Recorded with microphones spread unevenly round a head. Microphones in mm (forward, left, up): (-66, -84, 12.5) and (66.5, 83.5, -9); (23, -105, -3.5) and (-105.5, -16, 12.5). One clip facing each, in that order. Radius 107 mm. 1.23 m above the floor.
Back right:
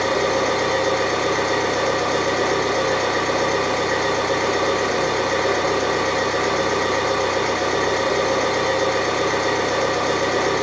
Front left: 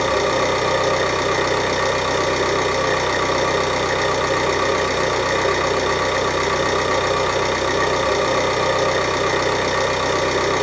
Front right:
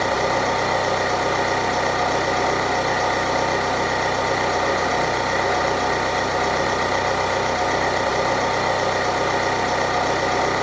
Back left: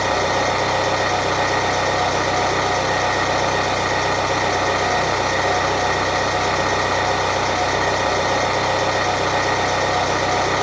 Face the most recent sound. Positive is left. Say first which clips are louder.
# front left 1 dB, back left 1 dB
turn(degrees=90)